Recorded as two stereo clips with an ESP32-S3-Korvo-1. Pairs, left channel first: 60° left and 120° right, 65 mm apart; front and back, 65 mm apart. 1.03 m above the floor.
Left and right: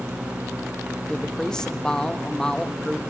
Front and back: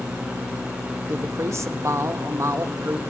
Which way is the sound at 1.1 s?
140° left.